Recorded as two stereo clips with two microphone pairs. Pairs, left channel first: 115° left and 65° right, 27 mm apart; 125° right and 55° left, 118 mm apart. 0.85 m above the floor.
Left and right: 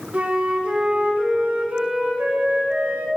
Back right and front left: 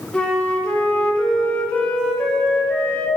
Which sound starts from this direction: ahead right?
A flute, at 0.1 s.